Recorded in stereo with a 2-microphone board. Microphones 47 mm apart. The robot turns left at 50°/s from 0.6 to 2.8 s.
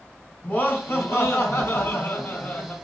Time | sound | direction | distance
0.4 | laughter | 130° left | 3 m